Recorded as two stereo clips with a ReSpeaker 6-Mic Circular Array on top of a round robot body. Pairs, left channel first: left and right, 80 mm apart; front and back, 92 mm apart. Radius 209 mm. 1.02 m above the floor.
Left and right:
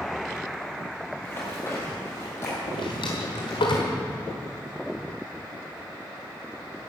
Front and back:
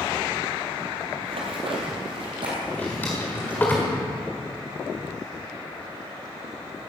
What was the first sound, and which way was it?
Running footsteps, 160° left.